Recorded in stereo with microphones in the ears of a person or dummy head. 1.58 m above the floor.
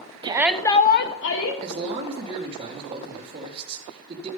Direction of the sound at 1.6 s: 25° right (ahead or behind).